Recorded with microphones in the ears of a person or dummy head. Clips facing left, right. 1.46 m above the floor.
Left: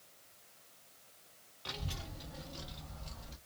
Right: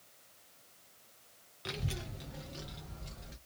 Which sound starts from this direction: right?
A child speaking, at 1.6 s.